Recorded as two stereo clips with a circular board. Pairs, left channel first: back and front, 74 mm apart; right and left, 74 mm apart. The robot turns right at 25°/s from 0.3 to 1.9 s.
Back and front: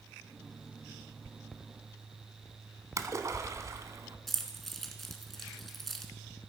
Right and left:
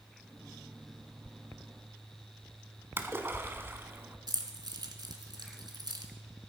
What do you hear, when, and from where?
3.0 s a splash: 35° left, 1.2 m
4.3 s keys jangling: 95° left, 1.7 m